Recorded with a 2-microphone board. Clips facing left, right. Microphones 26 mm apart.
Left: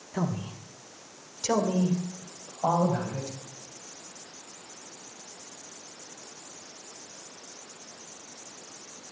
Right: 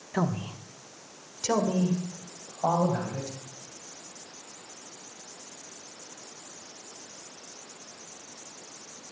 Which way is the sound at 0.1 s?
35° right (ahead or behind).